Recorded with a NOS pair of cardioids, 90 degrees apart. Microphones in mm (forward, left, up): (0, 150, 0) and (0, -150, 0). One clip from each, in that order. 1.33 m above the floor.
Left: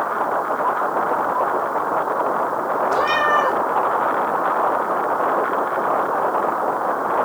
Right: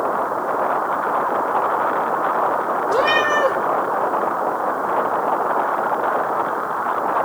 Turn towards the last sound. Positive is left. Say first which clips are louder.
# right 1 dB
turn(degrees=-20)